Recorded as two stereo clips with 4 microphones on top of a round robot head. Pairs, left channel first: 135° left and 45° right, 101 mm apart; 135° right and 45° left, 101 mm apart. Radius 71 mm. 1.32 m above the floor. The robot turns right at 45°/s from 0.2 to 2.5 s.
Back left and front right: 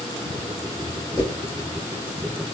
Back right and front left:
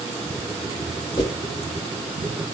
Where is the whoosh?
175° left, 2 m; by 1.4 s 175° right, 2 m.